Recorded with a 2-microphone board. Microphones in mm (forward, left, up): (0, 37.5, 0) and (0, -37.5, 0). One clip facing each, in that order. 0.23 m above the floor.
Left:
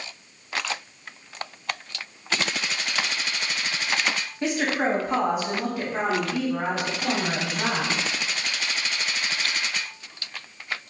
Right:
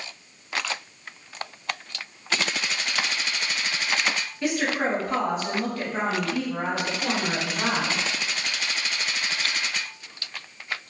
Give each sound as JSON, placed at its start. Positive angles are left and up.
{"t": 4.4, "sound": "a woman speaking", "side_deg": 30, "distance_m": 1.0}